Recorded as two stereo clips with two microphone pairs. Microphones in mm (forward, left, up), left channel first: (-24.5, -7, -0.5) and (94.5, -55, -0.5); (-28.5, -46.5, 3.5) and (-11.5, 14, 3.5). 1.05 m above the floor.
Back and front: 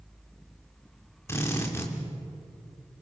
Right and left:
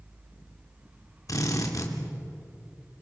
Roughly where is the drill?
Behind right.